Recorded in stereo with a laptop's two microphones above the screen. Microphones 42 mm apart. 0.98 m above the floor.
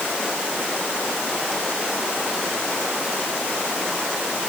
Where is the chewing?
No chewing in this recording.